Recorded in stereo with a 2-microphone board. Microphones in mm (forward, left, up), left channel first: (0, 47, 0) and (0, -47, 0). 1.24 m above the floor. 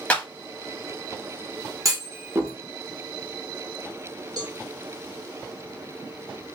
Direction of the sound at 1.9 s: 35° right (ahead or behind).